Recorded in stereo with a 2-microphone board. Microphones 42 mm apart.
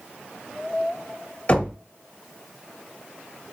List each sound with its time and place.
1.5 s knocking: 35° left (ahead or behind), 0.9 m